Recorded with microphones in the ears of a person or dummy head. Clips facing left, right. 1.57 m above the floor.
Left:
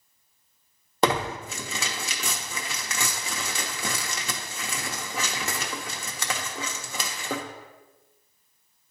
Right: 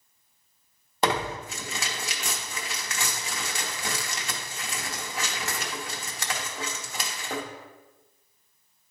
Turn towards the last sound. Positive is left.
turn(degrees=75)  # may be behind; listen again after turning